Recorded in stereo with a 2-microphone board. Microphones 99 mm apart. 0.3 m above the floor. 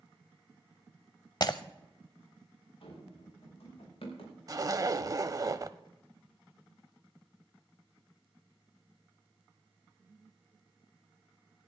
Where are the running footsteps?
65° left (ahead or behind), 5 m; by 4.4 s 80° left, 6 m.